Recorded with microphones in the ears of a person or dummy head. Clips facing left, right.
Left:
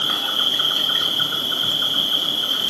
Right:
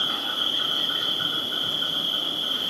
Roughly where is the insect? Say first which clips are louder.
Left 4 dB; left.